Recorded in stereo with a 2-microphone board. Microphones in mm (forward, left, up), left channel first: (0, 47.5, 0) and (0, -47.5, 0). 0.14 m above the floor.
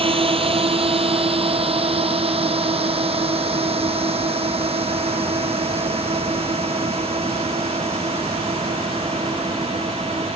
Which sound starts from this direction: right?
A drone, at 0.0 s.